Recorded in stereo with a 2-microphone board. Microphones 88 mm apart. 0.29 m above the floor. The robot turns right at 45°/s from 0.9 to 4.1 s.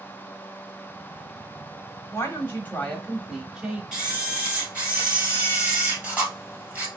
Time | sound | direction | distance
2.1 | a woman speaking | 125° left | 1.1 m
3.9 | a camera shutter | 5° right (ahead or behind) | 1.3 m